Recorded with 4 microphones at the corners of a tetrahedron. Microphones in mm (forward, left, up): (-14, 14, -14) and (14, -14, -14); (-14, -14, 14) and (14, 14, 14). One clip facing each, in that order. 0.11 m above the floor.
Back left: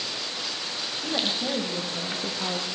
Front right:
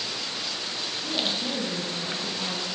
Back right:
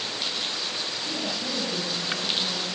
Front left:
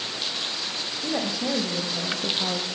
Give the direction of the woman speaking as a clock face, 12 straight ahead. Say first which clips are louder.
Back left 1 dB, front left 7 dB; 9 o'clock.